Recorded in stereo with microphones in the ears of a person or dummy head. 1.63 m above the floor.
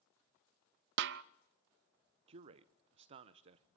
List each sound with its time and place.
1.0 s a snare drum: 65° right (ahead or behind), 0.6 m
2.3 s a man speaking: 35° right (ahead or behind), 0.7 m